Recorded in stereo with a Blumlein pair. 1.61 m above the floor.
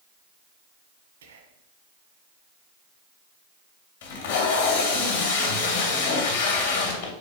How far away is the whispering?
About 1.4 m.